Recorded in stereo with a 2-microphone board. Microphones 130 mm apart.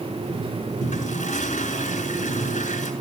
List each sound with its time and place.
0.8 s a toilet flushing: 80° left, 3.5 m